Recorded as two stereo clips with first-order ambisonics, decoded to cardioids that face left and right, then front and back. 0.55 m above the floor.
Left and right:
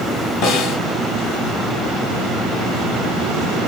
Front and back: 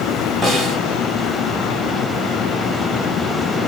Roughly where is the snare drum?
Left.